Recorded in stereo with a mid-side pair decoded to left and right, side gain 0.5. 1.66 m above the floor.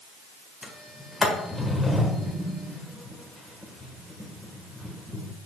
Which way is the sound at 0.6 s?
15° left.